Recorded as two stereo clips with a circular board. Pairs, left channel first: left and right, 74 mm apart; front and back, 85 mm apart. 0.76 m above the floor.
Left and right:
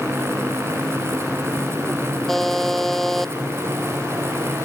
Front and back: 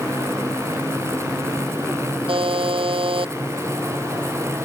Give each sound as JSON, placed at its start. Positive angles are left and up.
{"t": 2.3, "sound": "a buzzer", "azimuth_deg": 175}